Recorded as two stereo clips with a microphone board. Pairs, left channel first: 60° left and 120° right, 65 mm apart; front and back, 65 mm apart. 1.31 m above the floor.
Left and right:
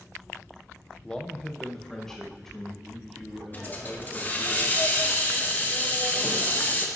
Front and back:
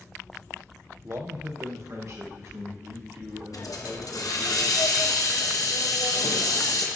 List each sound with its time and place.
1.0 s a man speaking: 135° left, 0.6 m; by 4.5 s 145° left, 3.5 m
3.5 s a hiss: straight ahead, 1.0 m